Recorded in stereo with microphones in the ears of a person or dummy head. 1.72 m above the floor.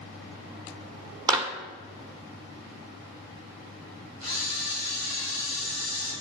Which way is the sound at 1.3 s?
25° right (ahead or behind).